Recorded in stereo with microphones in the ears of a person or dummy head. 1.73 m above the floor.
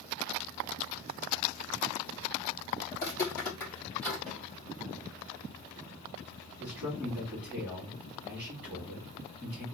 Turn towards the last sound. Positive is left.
turn(degrees=-10)  # may be behind; listen again after turning